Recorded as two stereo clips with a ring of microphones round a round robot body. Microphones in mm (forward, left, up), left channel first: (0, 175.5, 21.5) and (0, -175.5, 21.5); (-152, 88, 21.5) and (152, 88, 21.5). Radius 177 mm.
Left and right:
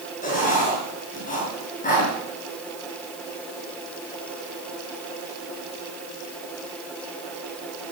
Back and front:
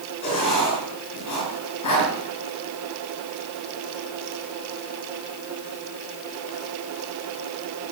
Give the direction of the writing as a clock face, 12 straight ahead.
7 o'clock.